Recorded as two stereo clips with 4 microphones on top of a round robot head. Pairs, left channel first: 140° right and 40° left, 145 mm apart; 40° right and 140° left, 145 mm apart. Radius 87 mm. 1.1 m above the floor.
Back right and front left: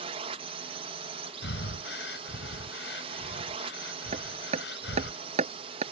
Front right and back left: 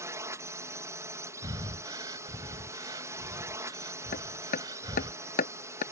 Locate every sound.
0.0 s a drone: 75° left
1.4 s breathing: 155° right
4.1 s hammering: 5° right